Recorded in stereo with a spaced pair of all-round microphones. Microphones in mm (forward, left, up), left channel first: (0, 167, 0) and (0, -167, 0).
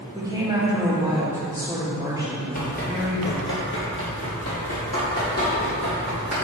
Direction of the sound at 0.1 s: 10° right (ahead or behind).